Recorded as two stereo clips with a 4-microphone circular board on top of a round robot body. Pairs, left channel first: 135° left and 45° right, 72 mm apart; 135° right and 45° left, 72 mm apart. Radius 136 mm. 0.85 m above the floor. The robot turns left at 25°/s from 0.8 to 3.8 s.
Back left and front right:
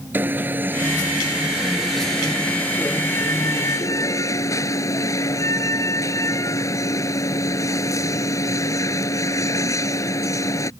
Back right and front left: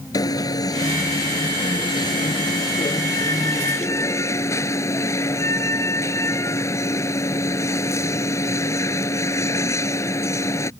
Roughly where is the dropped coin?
I don't hear a dropped coin.